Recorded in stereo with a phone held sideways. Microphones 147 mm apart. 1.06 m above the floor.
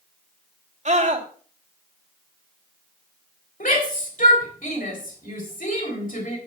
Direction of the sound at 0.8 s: 55° right (ahead or behind).